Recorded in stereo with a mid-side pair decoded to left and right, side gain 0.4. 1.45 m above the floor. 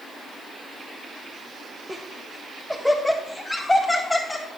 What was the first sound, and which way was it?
Laughter, 25° right.